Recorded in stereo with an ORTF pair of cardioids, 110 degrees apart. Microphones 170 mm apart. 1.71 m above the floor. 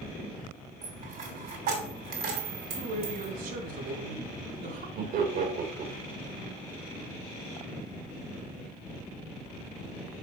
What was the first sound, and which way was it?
A dropped coin, 65° right.